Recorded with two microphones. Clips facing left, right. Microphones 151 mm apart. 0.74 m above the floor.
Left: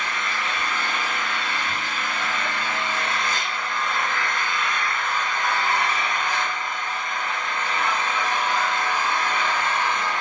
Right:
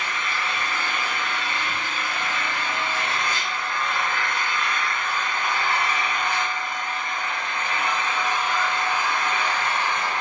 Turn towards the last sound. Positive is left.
turn(degrees=-55)  # may be behind; listen again after turning